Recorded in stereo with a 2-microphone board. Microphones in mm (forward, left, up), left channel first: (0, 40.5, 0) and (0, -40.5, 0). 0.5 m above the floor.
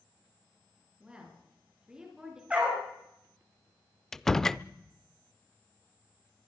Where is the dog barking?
15° right (ahead or behind), 7 m.